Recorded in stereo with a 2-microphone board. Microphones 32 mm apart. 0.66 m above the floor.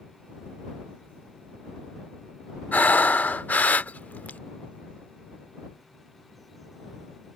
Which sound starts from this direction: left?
Breathing, at 2.7 s.